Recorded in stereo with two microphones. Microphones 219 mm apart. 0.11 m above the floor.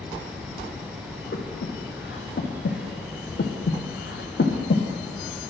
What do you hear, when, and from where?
1.3 s breathing: 60° left (ahead or behind), 1.0 m